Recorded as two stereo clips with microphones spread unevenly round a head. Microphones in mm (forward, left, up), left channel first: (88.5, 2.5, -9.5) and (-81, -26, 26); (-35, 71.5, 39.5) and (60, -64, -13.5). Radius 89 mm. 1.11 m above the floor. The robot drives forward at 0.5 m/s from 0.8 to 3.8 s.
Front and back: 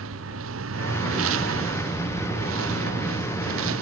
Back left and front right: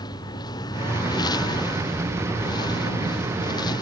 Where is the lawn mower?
165° right; by 3.8 s 170° right.